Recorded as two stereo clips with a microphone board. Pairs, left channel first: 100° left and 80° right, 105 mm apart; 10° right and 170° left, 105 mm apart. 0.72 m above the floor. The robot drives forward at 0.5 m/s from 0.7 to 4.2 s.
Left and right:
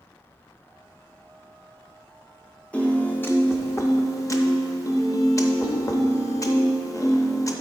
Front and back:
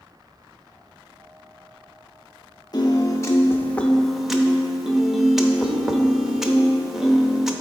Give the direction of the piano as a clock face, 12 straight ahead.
11 o'clock.